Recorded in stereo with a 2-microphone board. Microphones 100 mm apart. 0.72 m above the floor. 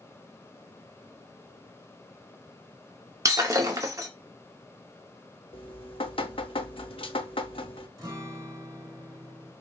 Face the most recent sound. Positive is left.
turn(degrees=-40)  # may be behind; listen again after turning